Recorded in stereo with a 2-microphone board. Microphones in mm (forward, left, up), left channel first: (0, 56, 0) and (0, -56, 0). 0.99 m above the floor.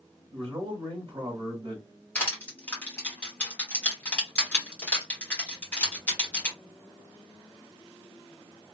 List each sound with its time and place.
0.3 s a man speaking: 50° right (ahead or behind), 1.2 m
2.1 s crushing: 15° left (ahead or behind), 1.7 m